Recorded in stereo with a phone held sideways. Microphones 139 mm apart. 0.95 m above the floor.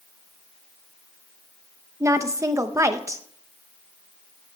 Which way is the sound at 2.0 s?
25° right (ahead or behind).